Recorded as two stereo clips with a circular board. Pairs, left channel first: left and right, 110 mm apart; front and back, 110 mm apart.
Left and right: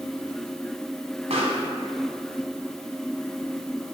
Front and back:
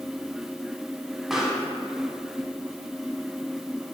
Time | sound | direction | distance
1.3 | a pop | 95° right | 1.8 m